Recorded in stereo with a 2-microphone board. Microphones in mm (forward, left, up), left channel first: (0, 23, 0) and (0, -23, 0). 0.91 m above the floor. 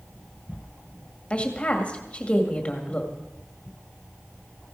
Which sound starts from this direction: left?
A woman speaking, at 1.3 s.